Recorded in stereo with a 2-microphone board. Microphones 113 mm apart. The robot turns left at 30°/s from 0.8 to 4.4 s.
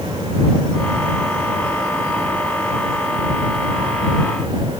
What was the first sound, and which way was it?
Only background noise.